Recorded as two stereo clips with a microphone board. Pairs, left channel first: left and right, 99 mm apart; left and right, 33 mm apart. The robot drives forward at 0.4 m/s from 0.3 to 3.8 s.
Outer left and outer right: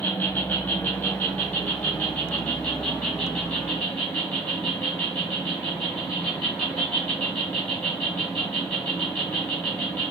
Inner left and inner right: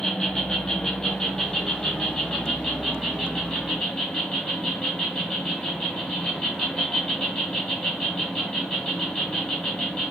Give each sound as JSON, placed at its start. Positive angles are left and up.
{"t": 0.0, "sound": "an insect", "side_deg": 15, "distance_m": 1.9}